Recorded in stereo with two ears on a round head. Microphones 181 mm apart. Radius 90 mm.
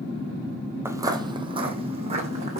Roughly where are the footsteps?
Centre.